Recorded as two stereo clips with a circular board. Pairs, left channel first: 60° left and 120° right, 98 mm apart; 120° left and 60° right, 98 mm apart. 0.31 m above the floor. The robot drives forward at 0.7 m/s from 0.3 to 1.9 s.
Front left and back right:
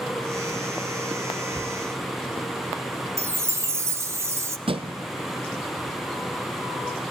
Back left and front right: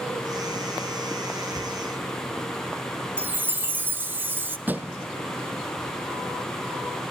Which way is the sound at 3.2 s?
110° right.